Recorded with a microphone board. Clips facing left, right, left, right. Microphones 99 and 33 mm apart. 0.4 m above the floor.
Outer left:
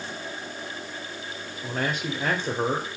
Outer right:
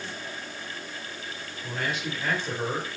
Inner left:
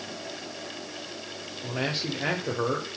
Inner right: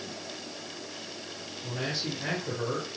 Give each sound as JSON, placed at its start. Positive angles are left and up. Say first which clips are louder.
{"t": 1.6, "sound": "a man speaking", "louder": "outer left 3 dB, inner left 3 dB", "side_deg": 45, "distance_m": 1.4}